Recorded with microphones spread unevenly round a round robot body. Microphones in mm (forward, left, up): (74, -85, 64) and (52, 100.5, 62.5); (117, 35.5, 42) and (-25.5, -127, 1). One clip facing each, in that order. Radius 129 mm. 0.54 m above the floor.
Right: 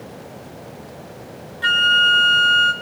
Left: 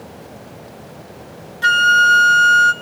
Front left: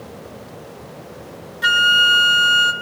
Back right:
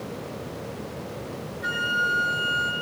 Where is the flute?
55° left, 0.9 m.